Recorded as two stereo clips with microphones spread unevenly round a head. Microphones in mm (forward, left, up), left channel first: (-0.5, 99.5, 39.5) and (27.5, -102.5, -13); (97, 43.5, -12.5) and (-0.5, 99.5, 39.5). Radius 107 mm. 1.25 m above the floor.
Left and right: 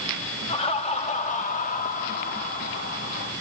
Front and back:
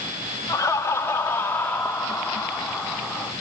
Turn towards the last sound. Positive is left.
turn(degrees=55)